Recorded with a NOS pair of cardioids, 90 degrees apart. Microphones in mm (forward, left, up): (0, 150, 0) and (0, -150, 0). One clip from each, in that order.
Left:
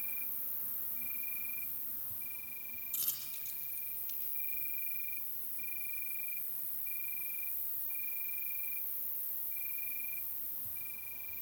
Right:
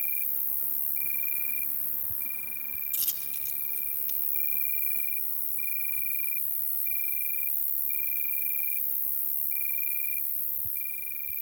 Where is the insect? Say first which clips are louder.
Right 8 dB; 55° right, 0.9 m.